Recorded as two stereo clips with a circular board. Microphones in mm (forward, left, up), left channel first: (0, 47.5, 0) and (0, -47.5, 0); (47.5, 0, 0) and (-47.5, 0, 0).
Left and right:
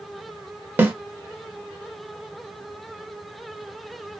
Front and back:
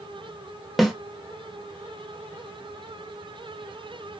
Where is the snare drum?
90° right, 0.6 m.